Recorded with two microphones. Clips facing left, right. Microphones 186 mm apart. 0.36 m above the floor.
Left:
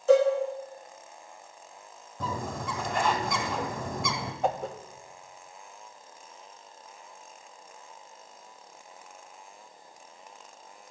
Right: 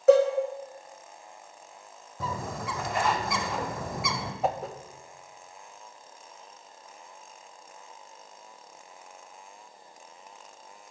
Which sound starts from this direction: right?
A cowbell, at 0.1 s.